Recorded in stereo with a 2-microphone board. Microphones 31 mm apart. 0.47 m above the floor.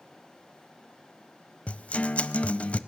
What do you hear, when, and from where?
1.7 s a guitar: 45° left (ahead or behind), 0.6 m